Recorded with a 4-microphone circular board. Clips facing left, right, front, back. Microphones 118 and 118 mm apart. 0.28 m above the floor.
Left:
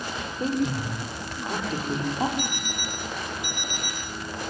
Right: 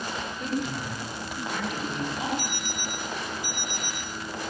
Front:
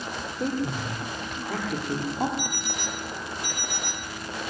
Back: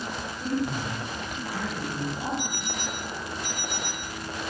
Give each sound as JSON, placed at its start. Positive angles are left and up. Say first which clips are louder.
{"t": 0.4, "sound": "a woman speaking", "louder": "left 6 dB, even", "azimuth_deg": 30, "distance_m": 9.5}
{"t": 2.4, "sound": "an alarm clock", "louder": "left 2 dB, even", "azimuth_deg": 115, "distance_m": 5.0}